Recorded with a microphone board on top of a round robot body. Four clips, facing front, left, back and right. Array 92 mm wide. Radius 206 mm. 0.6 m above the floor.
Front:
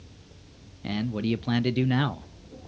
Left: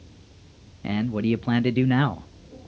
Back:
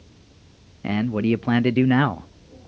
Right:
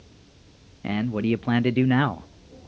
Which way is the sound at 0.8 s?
165° right.